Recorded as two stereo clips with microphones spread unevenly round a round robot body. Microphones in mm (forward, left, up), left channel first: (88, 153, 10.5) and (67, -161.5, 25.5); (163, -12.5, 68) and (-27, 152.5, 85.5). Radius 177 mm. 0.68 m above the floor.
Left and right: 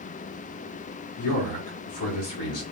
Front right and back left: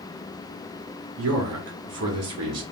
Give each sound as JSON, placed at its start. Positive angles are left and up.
{"t": 1.2, "sound": "a man speaking", "azimuth_deg": 120, "distance_m": 1.3}